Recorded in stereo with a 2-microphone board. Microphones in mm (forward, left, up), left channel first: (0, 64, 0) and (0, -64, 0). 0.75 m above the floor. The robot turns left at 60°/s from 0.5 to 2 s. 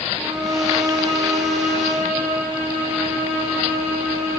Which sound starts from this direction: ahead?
A violin, at 0.2 s.